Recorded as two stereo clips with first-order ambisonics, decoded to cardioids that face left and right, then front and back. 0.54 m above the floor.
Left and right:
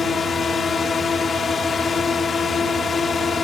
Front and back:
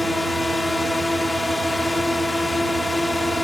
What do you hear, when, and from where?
0.0 s a drone: 75° left